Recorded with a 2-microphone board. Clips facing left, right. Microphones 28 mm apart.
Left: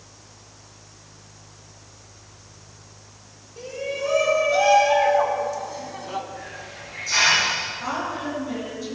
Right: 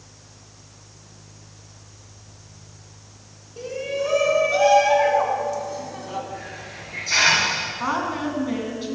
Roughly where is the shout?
Centre.